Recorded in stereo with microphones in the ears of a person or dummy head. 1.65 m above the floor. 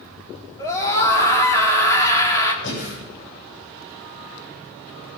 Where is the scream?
25° left (ahead or behind), 3.5 m.